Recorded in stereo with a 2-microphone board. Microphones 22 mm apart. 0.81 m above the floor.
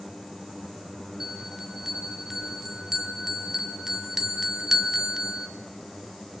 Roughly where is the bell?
Centre.